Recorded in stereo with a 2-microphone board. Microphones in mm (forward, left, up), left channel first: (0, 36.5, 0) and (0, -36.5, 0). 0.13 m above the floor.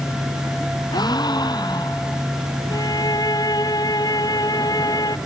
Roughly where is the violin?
Left.